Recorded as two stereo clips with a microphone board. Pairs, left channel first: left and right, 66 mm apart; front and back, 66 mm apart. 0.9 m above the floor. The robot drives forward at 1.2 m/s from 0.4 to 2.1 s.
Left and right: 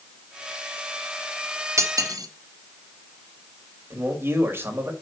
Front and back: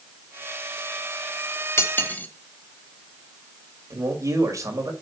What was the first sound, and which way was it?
Cutlery clinking, 50° right.